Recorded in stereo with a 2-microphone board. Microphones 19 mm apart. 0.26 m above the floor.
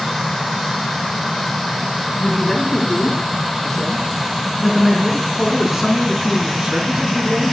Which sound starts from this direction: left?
A man speaking, at 2.2 s.